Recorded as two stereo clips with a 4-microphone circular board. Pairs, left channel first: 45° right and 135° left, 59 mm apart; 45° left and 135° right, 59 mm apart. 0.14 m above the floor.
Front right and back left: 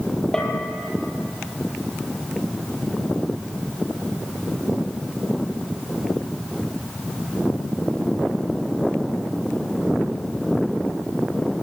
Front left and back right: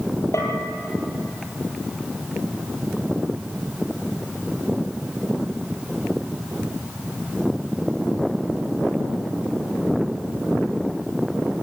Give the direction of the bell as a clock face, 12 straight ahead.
11 o'clock.